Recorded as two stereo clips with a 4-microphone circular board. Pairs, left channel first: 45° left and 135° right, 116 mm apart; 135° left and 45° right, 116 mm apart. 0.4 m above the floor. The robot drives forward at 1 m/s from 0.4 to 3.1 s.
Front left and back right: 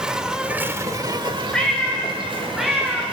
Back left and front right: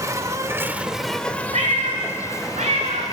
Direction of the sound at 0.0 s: 60° right.